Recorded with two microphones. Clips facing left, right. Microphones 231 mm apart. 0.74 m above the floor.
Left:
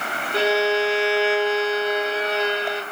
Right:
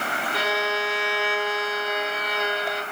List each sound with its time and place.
0.3 s a violin: 30° left (ahead or behind), 1.1 m